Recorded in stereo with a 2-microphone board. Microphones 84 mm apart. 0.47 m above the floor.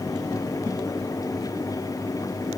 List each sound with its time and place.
Only background noise.